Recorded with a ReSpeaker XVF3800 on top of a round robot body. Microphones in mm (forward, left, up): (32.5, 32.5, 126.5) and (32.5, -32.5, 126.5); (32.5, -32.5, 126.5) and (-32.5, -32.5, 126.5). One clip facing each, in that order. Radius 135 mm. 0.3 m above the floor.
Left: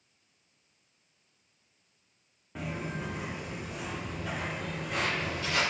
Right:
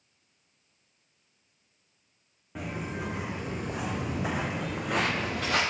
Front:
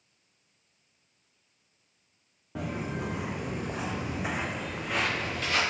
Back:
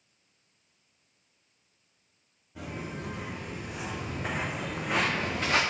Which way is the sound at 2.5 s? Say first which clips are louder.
Right 1 dB, front 4 dB; 5° right.